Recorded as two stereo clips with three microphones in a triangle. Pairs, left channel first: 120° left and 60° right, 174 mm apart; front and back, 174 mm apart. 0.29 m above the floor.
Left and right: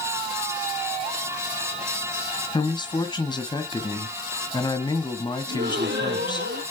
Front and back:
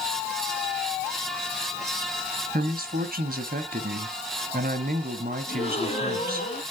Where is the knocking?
No knocking in this recording.